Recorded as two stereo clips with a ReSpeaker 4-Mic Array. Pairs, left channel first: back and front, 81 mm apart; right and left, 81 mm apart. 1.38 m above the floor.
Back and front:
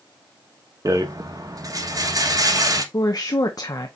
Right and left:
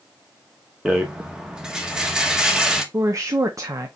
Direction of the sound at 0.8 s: 15° left.